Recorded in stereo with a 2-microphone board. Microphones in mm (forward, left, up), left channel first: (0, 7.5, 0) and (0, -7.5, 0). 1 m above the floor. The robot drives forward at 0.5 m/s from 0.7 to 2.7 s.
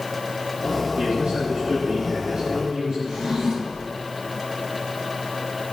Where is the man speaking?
80° right, 6.5 m; by 3.0 s 70° right (ahead or behind), 7 m.